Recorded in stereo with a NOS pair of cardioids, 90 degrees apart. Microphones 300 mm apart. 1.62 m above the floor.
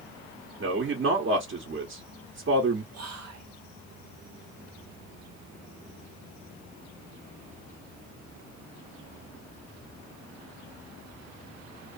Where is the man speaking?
40° right, 1.0 m.